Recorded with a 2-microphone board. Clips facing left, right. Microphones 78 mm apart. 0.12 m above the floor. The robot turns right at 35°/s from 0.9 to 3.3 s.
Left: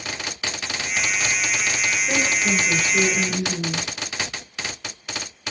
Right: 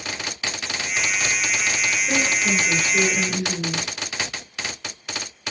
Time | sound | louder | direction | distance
2.1 | a woman speaking | even | 170° left | 1.9 m